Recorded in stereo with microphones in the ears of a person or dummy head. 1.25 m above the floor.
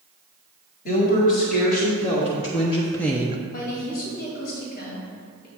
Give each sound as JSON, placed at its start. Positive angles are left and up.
{"t": 0.8, "sound": "a woman speaking", "side_deg": 55, "distance_m": 2.5}
{"t": 3.5, "sound": "a woman speaking", "side_deg": 50, "distance_m": 2.5}